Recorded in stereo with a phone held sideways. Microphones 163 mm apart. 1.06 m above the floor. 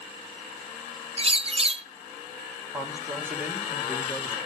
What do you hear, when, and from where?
1.2 s a bird: 35° right (ahead or behind), 0.6 m
2.7 s a man speaking: 10° right (ahead or behind), 3 m